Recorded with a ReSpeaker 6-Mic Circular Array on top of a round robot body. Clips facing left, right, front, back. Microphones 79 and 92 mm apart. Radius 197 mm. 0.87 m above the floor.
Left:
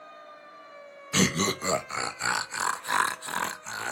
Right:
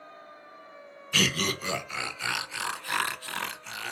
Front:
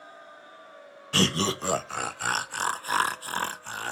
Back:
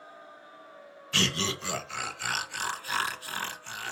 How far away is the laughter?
About 0.5 m.